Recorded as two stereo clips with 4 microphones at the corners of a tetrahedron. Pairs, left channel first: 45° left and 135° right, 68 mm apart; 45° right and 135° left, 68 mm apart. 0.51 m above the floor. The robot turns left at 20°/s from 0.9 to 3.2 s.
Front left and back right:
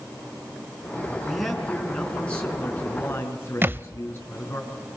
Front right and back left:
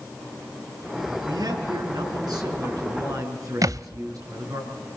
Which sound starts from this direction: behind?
A thud, at 3.6 s.